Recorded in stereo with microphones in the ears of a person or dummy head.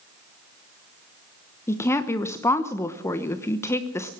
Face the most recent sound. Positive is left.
turn(degrees=15)  # may be behind; listen again after turning